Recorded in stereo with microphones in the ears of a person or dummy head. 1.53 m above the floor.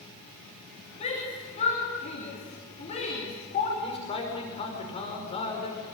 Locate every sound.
1.0 s a shout: 40° left (ahead or behind), 3.5 m
3.8 s a man speaking: 35° left (ahead or behind), 5.5 m